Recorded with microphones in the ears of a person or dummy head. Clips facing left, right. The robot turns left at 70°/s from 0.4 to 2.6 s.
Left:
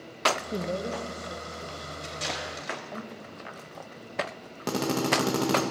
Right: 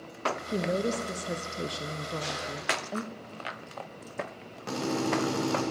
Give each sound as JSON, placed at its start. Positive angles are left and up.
{"t": 0.5, "sound": "a woman speaking", "azimuth_deg": -5, "distance_m": 0.5}
{"t": 2.0, "sound": "tape being pulled", "side_deg": 80, "distance_m": 5.0}
{"t": 4.7, "sound": "a drill", "side_deg": 60, "distance_m": 1.6}